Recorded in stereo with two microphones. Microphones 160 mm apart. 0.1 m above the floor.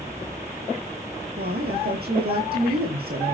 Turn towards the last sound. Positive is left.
turn(degrees=-75)  # may be behind; listen again after turning